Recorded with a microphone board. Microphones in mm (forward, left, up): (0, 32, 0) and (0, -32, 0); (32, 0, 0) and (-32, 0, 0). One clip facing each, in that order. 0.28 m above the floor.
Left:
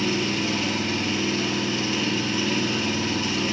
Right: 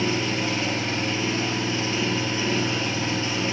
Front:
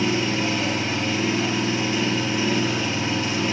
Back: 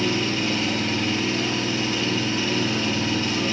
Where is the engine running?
55° right, 1.4 m.